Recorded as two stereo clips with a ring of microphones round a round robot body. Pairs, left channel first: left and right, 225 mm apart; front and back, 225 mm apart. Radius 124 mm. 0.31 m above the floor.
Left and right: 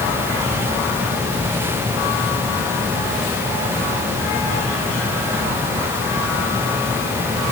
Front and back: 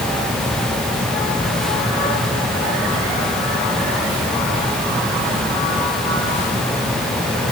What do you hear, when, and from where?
Only background noise.